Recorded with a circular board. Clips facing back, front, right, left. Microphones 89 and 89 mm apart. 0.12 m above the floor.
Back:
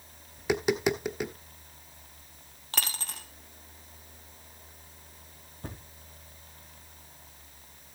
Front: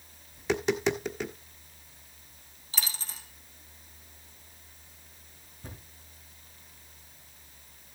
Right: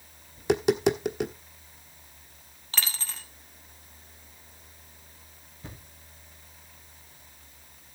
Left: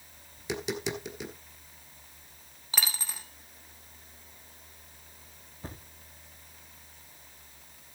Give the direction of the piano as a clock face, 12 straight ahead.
I don't hear a piano.